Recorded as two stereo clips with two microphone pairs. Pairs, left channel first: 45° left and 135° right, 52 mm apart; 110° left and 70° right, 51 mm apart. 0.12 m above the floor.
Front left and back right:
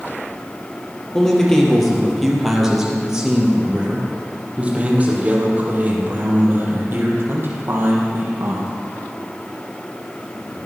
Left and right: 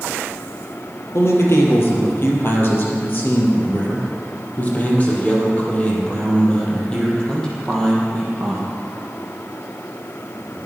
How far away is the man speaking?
About 3.5 m.